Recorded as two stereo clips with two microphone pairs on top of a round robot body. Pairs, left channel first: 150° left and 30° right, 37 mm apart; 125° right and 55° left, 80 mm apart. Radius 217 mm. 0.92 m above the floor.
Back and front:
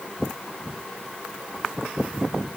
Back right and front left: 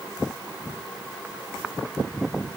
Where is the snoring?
I don't hear snoring.